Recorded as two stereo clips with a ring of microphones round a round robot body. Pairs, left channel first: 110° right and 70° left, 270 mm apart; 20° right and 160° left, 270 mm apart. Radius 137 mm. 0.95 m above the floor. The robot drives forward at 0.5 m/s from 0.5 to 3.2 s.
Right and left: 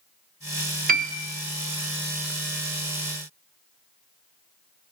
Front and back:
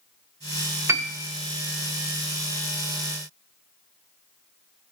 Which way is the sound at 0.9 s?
85° left.